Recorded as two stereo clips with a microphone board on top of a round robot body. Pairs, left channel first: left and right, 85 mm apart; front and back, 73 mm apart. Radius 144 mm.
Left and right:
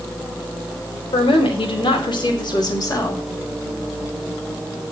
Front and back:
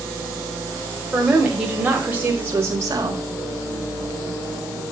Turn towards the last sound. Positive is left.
turn(degrees=145)